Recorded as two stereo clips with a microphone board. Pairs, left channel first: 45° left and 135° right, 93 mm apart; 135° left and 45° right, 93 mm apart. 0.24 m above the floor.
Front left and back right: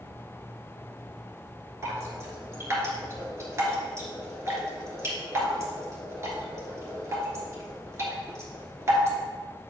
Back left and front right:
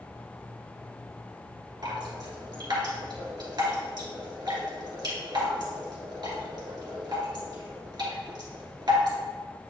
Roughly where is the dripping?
Right.